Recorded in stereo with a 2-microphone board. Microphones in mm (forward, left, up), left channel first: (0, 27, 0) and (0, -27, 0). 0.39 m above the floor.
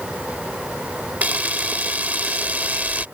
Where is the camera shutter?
30° right (ahead or behind).